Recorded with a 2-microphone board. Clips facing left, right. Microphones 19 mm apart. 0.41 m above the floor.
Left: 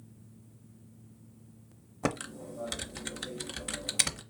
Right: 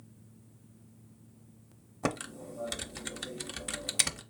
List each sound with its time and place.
2.0 s typing on a keyboard: centre (ahead or behind), 0.5 m